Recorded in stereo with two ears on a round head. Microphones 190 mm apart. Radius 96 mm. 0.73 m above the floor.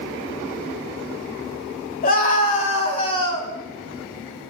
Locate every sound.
2.0 s a scream: 45° left (ahead or behind), 3 m; by 3.5 s 15° left (ahead or behind), 2.5 m